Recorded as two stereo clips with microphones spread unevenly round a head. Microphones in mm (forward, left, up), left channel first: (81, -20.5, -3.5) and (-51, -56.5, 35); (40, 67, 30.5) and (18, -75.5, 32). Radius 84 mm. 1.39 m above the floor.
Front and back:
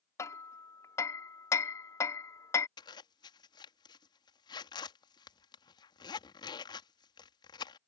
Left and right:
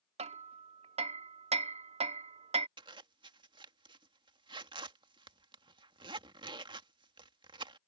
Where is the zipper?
45° right.